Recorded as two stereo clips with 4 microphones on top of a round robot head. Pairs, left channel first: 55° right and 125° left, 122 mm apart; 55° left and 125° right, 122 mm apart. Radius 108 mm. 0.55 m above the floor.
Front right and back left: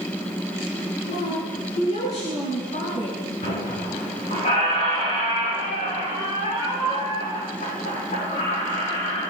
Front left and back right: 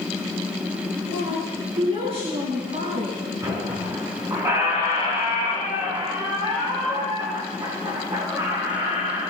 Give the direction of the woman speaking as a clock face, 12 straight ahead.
3 o'clock.